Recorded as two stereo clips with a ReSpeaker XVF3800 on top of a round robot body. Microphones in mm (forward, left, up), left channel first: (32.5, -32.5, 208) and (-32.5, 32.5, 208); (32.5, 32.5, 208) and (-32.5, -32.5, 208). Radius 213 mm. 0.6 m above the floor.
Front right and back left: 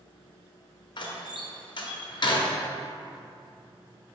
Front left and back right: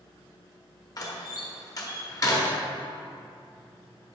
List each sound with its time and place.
1.0 s a door slam: 5° right, 1.1 m